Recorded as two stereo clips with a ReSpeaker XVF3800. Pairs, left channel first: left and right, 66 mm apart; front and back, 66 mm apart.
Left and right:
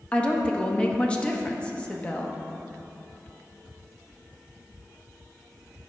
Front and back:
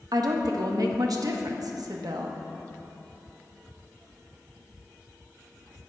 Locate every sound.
0.1 s a woman speaking: 165° left, 0.9 m